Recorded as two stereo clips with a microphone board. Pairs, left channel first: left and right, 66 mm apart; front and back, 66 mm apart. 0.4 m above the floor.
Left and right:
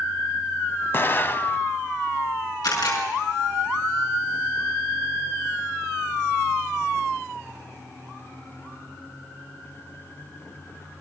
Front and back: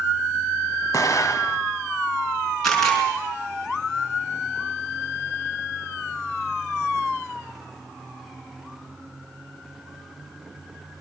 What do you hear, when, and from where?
0.9 s an explosion: 35° left, 0.6 m
2.6 s a camera shutter: 85° left, 5.5 m